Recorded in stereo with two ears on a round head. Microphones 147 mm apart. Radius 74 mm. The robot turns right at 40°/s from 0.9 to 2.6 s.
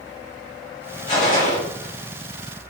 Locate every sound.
1.1 s a gunshot: 45° left (ahead or behind), 1.6 m